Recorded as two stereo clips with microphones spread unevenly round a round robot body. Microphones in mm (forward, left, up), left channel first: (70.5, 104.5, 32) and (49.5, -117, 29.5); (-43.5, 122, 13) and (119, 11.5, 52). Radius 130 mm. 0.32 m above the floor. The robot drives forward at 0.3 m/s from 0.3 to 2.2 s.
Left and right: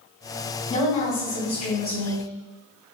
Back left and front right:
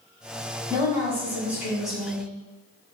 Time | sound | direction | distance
0.7 | a woman speaking | 45° left | 1.2 m